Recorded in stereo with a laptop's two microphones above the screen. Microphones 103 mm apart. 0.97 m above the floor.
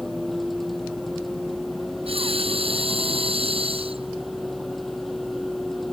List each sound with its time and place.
0.0 s a vehicle: centre (ahead or behind)
2.1 s breathing: 65° right (ahead or behind)